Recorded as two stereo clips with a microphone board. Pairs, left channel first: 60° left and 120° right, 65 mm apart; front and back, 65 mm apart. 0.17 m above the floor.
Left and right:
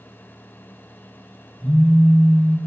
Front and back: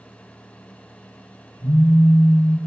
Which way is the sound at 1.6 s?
20° right.